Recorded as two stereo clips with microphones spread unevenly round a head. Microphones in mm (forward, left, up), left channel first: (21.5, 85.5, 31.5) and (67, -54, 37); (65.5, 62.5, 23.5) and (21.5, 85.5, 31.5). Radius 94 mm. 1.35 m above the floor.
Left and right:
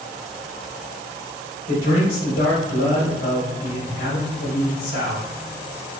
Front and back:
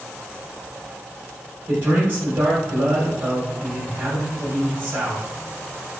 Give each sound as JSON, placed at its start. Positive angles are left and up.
{"t": 1.7, "sound": "a man speaking", "azimuth_deg": 120, "distance_m": 1.4}